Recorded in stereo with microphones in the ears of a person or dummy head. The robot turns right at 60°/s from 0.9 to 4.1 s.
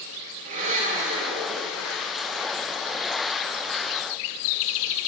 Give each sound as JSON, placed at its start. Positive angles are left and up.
{"t": 0.5, "sound": "a blender", "azimuth_deg": -130, "distance_m": 2.5}